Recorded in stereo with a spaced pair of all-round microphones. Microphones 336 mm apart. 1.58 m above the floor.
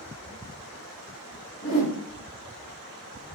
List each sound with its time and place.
1.6 s a whoosh: 40° left (ahead or behind), 1.4 m